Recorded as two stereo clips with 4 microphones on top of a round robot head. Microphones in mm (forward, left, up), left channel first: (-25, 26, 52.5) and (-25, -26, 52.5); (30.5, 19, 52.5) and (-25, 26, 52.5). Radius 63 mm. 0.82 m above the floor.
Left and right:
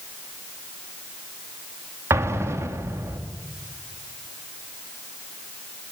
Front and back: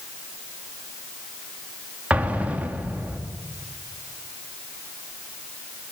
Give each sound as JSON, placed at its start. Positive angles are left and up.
{"t": 2.1, "sound": "an explosion", "azimuth_deg": -120, "distance_m": 2.5}